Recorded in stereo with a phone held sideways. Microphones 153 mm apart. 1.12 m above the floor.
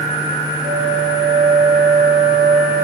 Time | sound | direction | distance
0.6 | a flute | 50° right (ahead or behind) | 3 m